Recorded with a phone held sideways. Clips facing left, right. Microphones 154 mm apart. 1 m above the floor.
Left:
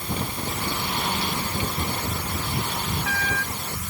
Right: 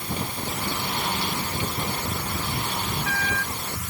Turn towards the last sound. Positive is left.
No sound to turn to.